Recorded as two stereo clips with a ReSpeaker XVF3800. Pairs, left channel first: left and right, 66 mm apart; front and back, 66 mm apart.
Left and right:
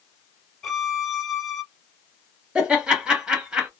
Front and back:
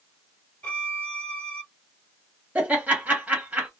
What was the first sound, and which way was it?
A violin, 5° left.